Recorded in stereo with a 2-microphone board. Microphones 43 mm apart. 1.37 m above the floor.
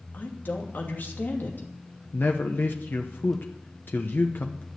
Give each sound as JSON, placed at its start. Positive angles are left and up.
{"t": 0.1, "sound": "a woman speaking", "side_deg": 45, "distance_m": 2.5}
{"t": 2.1, "sound": "a man speaking", "side_deg": 50, "distance_m": 1.0}